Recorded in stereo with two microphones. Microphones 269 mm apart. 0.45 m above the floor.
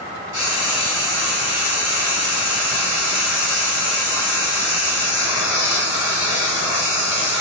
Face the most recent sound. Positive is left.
turn(degrees=-10)  # may be behind; listen again after turning